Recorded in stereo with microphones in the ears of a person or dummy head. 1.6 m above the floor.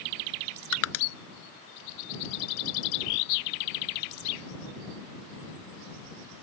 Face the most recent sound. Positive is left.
turn(degrees=70)  # may be behind; listen again after turning